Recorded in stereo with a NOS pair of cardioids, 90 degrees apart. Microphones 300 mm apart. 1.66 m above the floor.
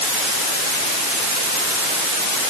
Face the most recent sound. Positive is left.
No sound to turn to.